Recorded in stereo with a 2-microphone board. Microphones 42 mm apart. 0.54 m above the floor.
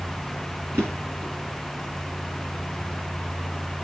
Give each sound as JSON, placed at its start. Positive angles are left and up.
{"t": 0.7, "sound": "a drawer", "side_deg": -80, "distance_m": 5.5}